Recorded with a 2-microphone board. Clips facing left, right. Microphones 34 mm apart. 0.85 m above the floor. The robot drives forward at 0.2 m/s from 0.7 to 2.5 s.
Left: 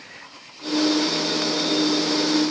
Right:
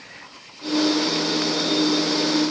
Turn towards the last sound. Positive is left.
No sound to turn to.